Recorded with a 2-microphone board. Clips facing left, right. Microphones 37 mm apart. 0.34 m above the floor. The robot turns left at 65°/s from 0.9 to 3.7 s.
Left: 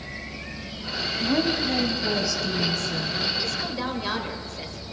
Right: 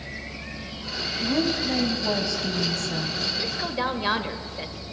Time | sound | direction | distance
1.2 | a woman speaking | 30° left | 1.7 m
3.4 | a woman speaking | 20° right (ahead or behind) | 1.0 m